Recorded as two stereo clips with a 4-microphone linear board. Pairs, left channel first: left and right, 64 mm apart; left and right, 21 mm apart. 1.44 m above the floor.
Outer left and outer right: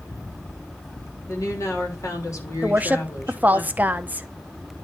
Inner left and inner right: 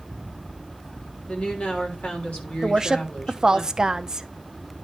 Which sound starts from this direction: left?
A woman speaking, at 1.3 s.